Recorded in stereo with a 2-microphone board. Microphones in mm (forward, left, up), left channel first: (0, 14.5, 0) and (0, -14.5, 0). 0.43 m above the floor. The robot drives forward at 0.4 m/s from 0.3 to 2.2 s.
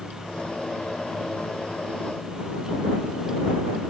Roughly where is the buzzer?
I don't hear a buzzer.